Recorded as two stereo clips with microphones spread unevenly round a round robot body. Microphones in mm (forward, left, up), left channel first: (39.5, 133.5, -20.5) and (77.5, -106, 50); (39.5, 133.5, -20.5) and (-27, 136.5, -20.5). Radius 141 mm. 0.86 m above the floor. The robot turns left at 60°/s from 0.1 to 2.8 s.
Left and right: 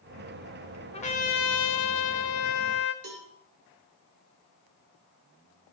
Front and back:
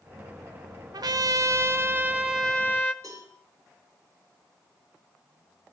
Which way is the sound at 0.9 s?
175° left.